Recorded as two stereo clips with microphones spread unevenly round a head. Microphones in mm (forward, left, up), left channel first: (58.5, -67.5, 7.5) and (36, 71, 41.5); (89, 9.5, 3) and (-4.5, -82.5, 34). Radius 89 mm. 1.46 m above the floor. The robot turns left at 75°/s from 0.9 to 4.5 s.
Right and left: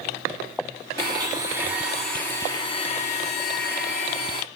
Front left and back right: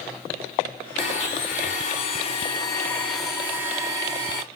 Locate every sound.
1.0 s a blender: 105° left, 1.1 m; by 4.4 s 155° right, 1.1 m